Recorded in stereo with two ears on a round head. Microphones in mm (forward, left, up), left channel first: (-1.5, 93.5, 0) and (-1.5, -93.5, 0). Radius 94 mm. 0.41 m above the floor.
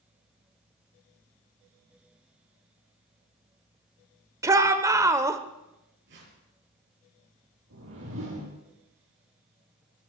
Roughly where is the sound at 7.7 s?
Right.